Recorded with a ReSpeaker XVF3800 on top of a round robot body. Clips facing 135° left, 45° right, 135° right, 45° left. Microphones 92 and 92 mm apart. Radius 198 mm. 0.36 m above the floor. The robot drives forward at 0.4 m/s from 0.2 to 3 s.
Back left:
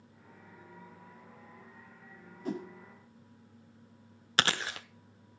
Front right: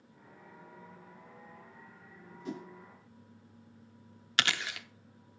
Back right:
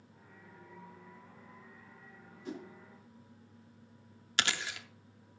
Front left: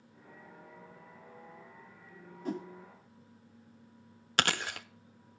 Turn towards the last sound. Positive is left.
turn(degrees=80)